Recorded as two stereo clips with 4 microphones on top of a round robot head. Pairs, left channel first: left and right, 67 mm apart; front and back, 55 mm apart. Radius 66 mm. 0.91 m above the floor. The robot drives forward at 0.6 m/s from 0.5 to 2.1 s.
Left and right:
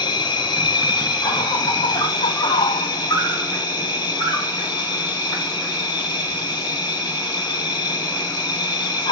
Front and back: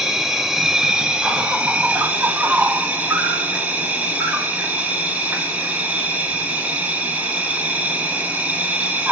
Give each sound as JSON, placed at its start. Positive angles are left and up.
{"t": 0.0, "sound": "an insect", "azimuth_deg": 100, "distance_m": 2.0}